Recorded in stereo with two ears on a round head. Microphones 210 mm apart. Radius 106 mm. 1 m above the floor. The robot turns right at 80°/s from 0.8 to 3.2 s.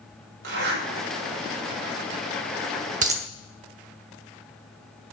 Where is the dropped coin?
35° right (ahead or behind), 0.8 m; by 3.2 s 25° right (ahead or behind), 0.8 m.